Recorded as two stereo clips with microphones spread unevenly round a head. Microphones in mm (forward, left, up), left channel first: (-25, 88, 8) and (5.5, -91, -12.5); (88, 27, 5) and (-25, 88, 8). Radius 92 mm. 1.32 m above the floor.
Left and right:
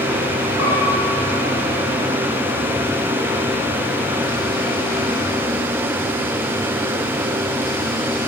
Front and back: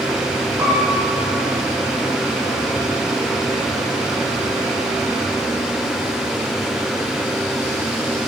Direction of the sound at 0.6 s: 85° left.